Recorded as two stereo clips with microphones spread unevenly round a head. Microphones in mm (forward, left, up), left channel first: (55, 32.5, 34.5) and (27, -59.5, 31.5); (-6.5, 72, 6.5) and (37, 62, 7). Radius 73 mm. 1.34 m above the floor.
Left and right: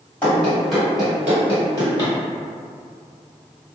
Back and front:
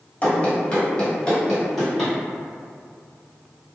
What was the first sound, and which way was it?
Running footsteps, 140° left.